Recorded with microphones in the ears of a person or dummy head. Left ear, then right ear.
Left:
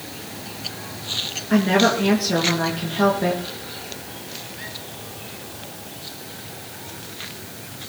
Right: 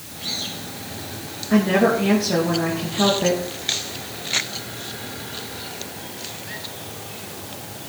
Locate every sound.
1.5 s a woman speaking: 15° left (ahead or behind), 2.5 m